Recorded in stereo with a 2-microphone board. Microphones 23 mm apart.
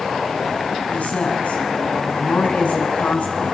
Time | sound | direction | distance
0.9 | a woman speaking | 75° left (ahead or behind) | 6 m